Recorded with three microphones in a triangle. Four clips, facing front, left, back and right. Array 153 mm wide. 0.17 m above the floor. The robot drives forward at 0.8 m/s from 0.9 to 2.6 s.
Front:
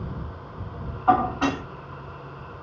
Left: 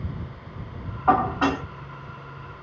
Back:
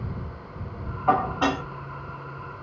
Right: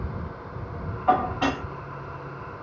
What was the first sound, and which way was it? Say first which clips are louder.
Dishes clattering: left 2 dB, front 2 dB; 75° left.